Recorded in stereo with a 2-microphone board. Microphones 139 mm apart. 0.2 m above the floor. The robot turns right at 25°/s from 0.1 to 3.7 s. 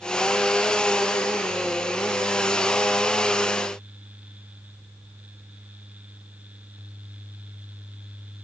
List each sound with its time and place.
Only background noise.